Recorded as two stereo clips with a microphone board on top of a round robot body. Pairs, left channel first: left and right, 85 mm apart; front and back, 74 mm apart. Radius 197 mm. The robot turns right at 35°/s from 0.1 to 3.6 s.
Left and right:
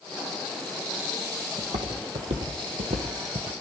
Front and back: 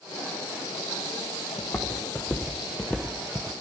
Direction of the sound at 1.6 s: 85° right.